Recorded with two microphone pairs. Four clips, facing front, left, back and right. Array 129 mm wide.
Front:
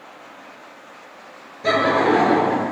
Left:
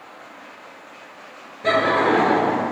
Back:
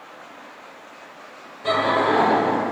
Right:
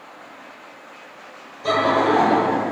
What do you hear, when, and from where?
1.6 s laughter: 40° left, 3 m; by 2.7 s 30° left, 3 m